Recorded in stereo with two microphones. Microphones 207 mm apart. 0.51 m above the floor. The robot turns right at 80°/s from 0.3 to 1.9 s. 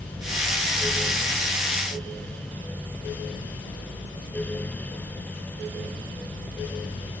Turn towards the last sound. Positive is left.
No sound to turn to.